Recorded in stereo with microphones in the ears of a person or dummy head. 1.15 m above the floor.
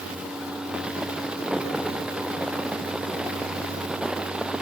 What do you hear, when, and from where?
Only background noise.